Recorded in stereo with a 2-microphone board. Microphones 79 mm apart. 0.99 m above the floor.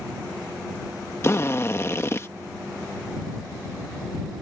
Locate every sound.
1.2 s a drill: 35° left (ahead or behind)